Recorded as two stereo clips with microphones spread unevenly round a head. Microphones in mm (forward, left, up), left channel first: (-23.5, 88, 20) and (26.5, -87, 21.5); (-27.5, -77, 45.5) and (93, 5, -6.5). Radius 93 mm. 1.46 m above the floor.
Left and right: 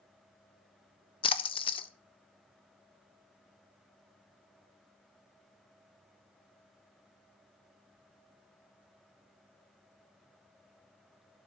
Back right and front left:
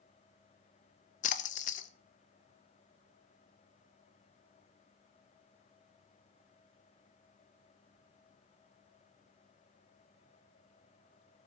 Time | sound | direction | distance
1.2 | a splash | 160° left | 0.6 m